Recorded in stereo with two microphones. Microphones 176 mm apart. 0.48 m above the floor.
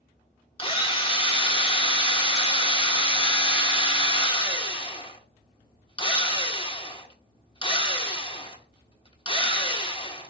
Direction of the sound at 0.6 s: 30° left (ahead or behind).